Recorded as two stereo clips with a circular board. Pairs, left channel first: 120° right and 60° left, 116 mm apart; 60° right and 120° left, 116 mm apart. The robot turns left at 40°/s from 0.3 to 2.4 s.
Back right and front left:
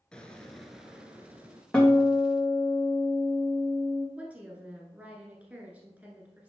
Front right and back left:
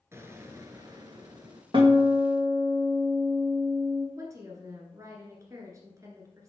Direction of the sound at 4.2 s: 125° left.